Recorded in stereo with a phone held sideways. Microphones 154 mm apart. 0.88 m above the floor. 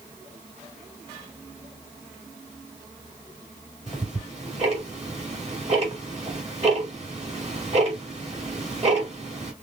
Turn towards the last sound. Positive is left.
turn(degrees=-45)  # may be behind; listen again after turning